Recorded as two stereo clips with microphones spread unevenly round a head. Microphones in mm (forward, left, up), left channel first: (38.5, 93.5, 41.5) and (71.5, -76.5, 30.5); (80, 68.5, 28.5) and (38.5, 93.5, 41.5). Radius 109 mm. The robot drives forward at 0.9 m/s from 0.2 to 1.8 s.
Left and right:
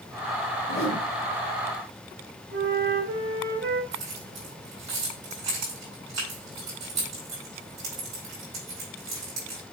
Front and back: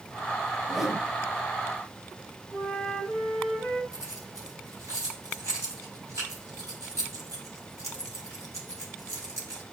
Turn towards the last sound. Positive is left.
turn(degrees=-155)